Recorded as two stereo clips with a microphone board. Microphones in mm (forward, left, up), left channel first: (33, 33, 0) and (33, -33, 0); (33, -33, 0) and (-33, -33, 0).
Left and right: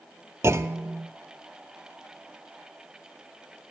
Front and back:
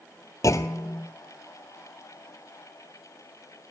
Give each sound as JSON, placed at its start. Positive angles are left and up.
{"t": 0.4, "sound": "a clunk", "azimuth_deg": -45, "distance_m": 0.7}